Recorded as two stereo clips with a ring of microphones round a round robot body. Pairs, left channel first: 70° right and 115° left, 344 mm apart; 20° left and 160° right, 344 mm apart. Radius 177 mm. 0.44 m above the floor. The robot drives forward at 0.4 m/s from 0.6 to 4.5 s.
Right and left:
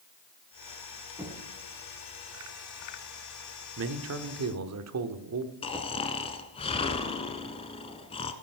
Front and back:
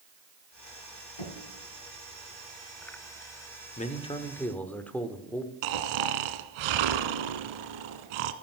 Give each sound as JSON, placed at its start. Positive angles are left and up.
{"t": 1.2, "sound": "knocking", "azimuth_deg": 30, "distance_m": 3.0}
{"t": 3.8, "sound": "a man speaking", "azimuth_deg": 80, "distance_m": 1.1}
{"t": 5.6, "sound": "snoring", "azimuth_deg": -145, "distance_m": 1.2}